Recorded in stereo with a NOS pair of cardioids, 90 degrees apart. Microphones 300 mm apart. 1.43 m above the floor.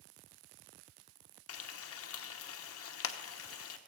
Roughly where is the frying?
Ahead left.